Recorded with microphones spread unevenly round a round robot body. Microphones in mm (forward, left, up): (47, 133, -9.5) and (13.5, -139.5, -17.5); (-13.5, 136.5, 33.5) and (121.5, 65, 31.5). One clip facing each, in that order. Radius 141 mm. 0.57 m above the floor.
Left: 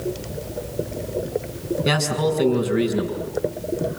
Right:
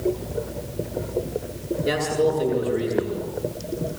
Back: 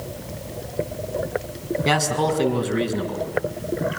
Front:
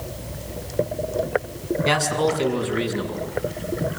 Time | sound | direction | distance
1.9 | a man speaking | 105° left | 6 m